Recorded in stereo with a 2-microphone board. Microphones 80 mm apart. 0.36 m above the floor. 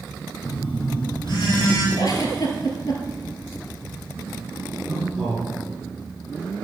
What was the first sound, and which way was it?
A phone buzzing, 60° left (ahead or behind).